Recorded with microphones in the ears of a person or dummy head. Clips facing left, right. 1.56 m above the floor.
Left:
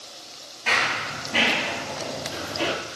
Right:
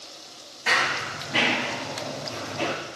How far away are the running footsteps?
About 1.8 m.